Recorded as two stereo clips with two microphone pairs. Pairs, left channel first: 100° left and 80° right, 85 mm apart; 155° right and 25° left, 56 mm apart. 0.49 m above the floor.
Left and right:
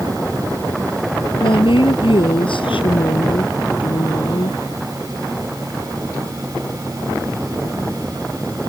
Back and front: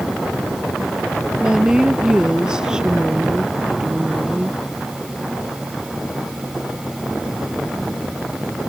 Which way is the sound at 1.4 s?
105° left.